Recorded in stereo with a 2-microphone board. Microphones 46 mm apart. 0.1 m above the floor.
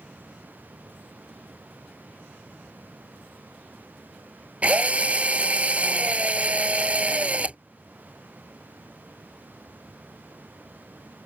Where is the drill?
30° right (ahead or behind).